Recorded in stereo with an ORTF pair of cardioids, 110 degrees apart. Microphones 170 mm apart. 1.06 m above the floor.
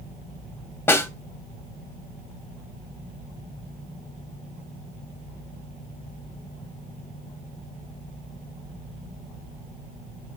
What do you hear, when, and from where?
0.9 s a snare drum: 15° left, 2 m